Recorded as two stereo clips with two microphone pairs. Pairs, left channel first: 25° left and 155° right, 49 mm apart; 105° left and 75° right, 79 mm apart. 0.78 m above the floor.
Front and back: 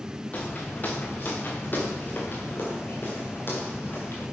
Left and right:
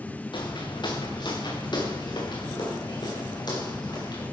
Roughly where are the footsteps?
Left.